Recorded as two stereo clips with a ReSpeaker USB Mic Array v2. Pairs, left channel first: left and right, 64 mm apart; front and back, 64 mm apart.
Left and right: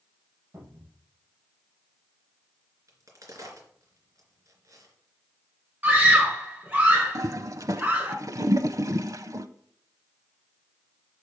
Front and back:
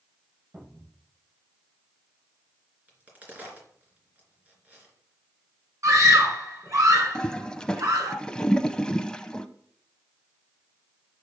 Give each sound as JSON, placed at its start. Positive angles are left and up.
{"t": 0.5, "sound": "a cupboard door", "azimuth_deg": -130, "distance_m": 5.5}
{"t": 2.9, "sound": "a crack", "azimuth_deg": -115, "distance_m": 3.0}
{"t": 5.8, "sound": "a scream", "azimuth_deg": -150, "distance_m": 3.5}
{"t": 7.2, "sound": "a toilet flushing", "azimuth_deg": -75, "distance_m": 0.6}